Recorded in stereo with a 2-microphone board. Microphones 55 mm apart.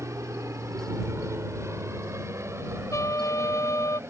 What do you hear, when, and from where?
0.0 s an aircraft: 65° right (ahead or behind); by 4.1 s 50° right (ahead or behind)
2.9 s a trumpet: 70° left (ahead or behind)